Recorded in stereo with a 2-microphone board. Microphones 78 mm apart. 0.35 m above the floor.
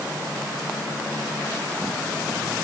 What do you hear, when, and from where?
Only background noise.